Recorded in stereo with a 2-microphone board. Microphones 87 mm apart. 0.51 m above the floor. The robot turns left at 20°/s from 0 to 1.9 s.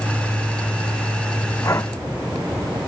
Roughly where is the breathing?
Left.